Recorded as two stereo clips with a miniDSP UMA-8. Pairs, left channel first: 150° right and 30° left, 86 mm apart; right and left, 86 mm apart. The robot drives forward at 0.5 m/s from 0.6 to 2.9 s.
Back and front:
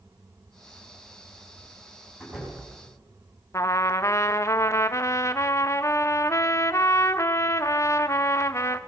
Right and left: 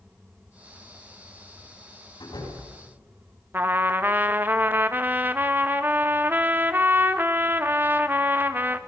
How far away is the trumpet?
About 0.9 m.